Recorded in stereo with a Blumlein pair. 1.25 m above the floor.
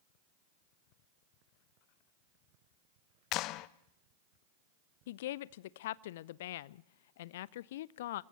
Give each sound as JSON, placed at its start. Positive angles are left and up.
{"t": 3.3, "sound": "a clap", "azimuth_deg": 40, "distance_m": 0.8}
{"t": 5.1, "sound": "a woman speaking", "azimuth_deg": 55, "distance_m": 0.7}